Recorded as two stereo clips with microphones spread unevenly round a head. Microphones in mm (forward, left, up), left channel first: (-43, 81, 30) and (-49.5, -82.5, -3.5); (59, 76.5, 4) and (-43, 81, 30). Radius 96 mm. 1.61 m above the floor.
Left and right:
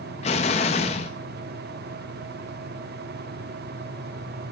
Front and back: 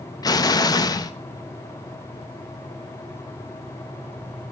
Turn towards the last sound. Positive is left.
turn(degrees=50)